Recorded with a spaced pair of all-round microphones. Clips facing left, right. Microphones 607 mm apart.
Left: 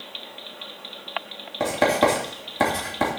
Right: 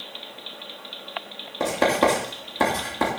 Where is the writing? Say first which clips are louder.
Even; 15° left (ahead or behind), 3 m.